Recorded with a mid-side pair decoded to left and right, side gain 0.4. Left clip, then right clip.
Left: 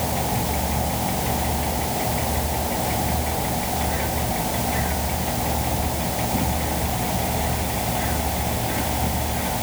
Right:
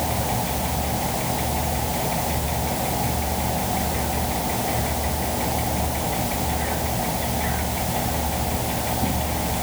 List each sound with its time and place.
Only background noise.